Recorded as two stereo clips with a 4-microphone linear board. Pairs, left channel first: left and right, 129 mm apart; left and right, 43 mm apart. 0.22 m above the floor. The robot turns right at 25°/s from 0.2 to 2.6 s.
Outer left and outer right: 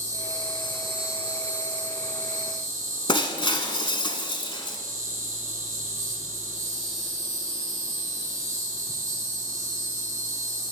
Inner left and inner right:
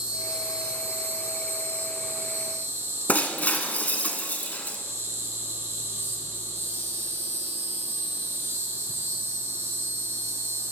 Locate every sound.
0.0 s an insect: 155° right, 2.5 m; by 10.7 s 95° right, 2.5 m
3.1 s breaking glass: 40° left (ahead or behind), 0.8 m